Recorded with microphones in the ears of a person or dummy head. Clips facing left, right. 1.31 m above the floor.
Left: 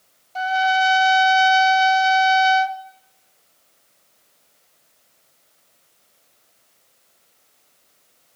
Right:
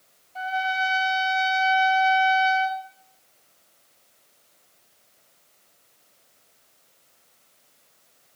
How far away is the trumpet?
About 1.6 m.